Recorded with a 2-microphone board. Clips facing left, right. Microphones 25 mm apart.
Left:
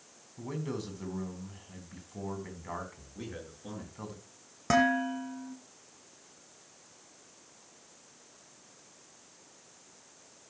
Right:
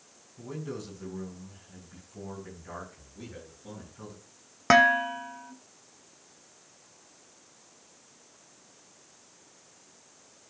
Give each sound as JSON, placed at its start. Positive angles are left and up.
{"t": 0.4, "sound": "a man speaking", "side_deg": 30, "distance_m": 4.0}
{"t": 3.1, "sound": "a man speaking", "side_deg": 35, "distance_m": 6.5}
{"t": 4.7, "sound": "dishes clattering", "side_deg": -45, "distance_m": 1.2}